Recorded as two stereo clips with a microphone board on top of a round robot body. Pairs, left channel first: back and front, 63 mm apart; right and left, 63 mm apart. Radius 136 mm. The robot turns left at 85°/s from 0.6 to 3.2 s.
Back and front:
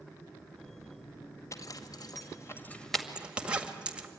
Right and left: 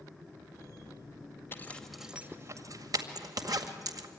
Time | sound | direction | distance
1.5 | a zipper | 140° right | 2.0 m